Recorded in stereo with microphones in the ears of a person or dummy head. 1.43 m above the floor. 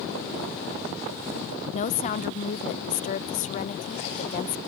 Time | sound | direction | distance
1.7 | a woman speaking | 40° left (ahead or behind) | ?